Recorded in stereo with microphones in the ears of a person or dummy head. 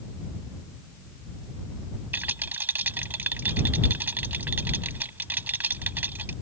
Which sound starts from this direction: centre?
A rattle, at 2.1 s.